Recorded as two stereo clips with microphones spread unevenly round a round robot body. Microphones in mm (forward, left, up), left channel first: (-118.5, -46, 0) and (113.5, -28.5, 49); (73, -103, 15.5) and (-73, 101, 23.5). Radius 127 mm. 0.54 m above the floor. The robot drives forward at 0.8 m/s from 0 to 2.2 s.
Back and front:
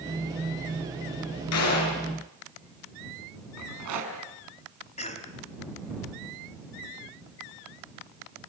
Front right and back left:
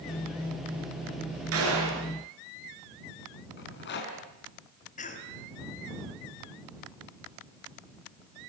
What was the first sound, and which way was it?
A gunshot, 160° left.